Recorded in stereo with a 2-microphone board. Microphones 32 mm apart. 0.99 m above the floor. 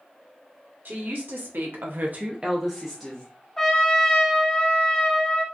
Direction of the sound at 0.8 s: 65° right (ahead or behind).